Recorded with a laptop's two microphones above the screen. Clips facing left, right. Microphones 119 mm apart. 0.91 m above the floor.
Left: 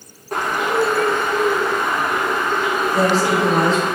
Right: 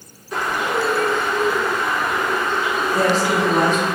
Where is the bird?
50° left (ahead or behind), 0.7 m.